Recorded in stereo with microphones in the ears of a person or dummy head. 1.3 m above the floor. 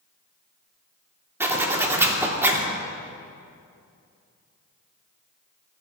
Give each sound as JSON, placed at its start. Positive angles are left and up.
{"t": 1.4, "sound": "a zipper", "side_deg": -15, "distance_m": 2.5}